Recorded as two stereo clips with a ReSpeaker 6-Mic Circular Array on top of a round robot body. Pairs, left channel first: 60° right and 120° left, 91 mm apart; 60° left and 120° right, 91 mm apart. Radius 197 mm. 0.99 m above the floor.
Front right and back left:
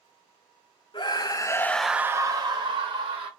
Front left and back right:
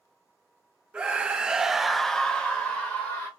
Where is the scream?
40° right, 0.7 m; by 3.3 s 140° left, 0.9 m.